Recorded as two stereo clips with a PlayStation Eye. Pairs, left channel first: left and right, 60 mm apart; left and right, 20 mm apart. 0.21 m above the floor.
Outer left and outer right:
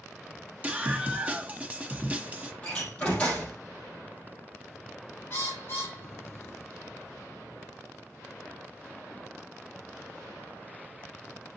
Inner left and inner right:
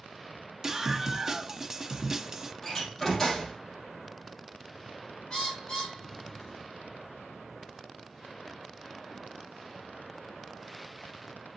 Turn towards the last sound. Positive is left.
turn(degrees=35)  # may be behind; listen again after turning